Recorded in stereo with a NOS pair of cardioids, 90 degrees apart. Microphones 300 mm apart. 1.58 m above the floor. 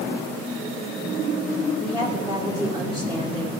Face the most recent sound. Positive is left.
turn(degrees=-15)